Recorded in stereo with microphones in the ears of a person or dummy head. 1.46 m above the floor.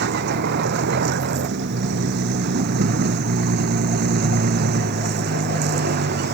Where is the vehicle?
55° right (ahead or behind); by 6.3 s 50° right (ahead or behind).